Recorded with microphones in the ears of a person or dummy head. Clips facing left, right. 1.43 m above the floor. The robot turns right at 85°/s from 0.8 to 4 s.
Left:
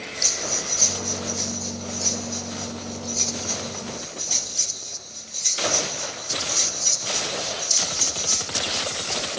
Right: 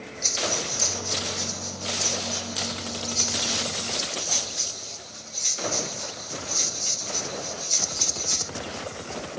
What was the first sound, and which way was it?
Breathing, 70° left (ahead or behind).